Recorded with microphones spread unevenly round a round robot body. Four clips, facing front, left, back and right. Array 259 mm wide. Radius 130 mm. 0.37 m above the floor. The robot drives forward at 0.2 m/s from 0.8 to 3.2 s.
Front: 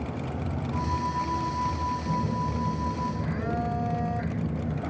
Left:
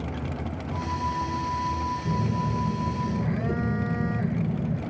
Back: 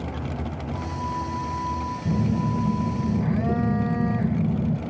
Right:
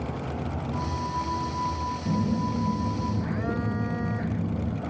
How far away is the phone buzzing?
About 1.5 m.